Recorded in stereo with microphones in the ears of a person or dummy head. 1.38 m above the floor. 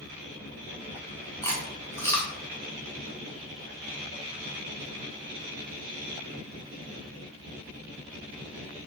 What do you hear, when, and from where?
1.4 s chewing: 15° left (ahead or behind), 0.7 m